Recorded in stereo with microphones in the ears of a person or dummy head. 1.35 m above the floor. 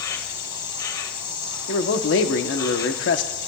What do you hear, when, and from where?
0.0 s an insect: 25° left (ahead or behind), 1.5 m
1.7 s a man speaking: 70° left (ahead or behind), 1.0 m